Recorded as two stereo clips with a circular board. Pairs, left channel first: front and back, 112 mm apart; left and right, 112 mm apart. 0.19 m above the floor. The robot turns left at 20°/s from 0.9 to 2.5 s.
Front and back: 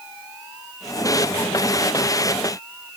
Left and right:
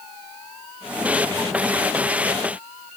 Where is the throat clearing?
No throat clearing in this recording.